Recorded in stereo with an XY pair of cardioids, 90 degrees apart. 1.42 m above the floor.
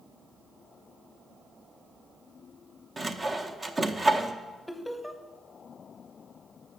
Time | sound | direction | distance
3.0 | sawing | 30° right | 0.7 m
4.7 | laughter | 5° left | 1.1 m